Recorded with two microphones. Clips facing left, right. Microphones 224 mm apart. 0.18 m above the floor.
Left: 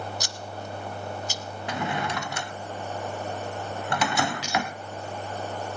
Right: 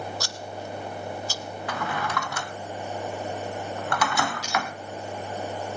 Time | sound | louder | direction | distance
0.2 | scissors | right 2 dB | 20° left (ahead or behind) | 0.9 m
1.7 | a drawer | left 2 dB | 25° left (ahead or behind) | 0.8 m
4.4 | cutlery clinking | left 1 dB | 80° left | 8 m